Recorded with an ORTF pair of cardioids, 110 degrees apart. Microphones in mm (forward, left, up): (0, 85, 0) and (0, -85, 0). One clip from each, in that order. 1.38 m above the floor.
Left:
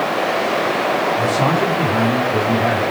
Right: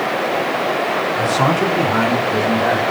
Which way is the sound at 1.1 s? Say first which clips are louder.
Even; 20° right.